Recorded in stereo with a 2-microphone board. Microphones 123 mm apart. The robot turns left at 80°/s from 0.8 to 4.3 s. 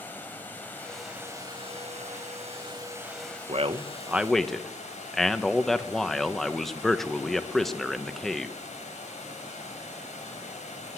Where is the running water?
15° left, 3 m; by 11.0 s 95° left, 3 m.